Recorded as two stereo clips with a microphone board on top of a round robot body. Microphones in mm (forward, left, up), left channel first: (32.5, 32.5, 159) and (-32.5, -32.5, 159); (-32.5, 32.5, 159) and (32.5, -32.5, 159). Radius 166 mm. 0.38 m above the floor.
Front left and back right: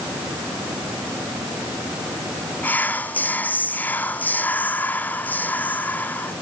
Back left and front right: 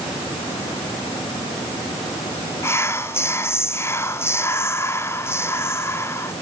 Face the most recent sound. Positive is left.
turn(degrees=100)